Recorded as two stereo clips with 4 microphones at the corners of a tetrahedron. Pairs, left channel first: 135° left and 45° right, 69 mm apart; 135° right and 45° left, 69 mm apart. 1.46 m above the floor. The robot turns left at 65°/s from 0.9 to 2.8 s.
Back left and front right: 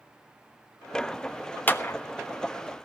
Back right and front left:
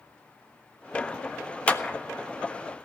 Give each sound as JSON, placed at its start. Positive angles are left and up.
{"t": 1.7, "sound": "a clap", "azimuth_deg": 175, "distance_m": 0.6}